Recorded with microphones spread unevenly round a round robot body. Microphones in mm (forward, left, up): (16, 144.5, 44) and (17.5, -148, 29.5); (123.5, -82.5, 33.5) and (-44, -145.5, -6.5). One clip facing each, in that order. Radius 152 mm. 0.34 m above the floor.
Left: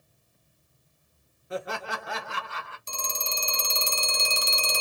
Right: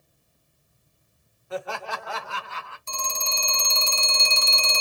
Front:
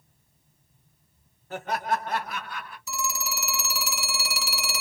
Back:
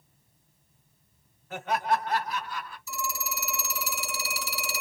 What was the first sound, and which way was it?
Laughter, 50° left.